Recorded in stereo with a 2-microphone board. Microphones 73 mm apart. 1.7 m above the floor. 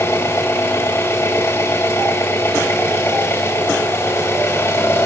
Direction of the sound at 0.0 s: 30° left (ahead or behind).